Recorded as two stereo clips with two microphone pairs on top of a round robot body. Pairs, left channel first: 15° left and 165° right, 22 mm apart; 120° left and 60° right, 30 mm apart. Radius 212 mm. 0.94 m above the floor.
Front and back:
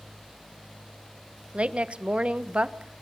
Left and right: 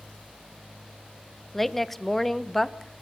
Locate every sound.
1.5 s a woman speaking: 155° right, 1.4 m